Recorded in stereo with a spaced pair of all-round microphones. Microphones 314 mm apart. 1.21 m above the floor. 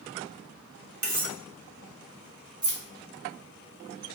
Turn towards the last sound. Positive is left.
turn(degrees=-75)  # may be behind; listen again after turning